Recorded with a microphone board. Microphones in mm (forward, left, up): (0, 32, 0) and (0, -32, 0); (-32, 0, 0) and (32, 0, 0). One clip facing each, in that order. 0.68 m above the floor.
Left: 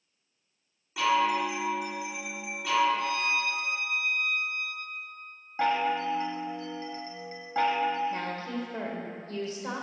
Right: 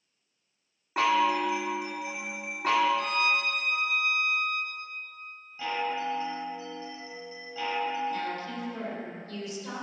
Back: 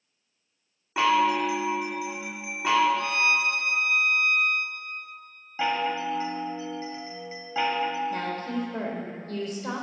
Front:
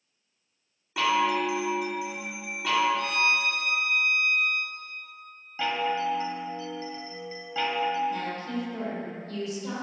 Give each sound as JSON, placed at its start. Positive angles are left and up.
{"t": 1.0, "sound": "a chime", "azimuth_deg": -120, "distance_m": 1.8}
{"t": 3.0, "sound": "a violin", "azimuth_deg": -115, "distance_m": 0.8}
{"t": 5.6, "sound": "a chime", "azimuth_deg": 110, "distance_m": 1.4}
{"t": 8.1, "sound": "a woman speaking", "azimuth_deg": 140, "distance_m": 3.0}